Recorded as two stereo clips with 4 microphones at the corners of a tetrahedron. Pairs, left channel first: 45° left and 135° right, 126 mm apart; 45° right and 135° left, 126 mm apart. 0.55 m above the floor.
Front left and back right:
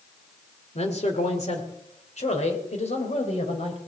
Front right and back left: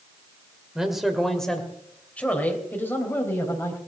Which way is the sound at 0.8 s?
50° left.